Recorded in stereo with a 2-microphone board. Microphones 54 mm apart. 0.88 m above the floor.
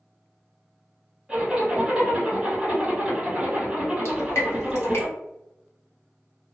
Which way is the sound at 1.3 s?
10° right (ahead or behind).